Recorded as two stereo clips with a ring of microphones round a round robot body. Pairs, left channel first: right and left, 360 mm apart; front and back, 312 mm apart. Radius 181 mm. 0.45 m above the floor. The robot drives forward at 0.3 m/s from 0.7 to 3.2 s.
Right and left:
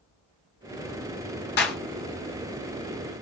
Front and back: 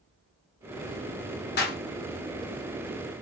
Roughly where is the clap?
Ahead right.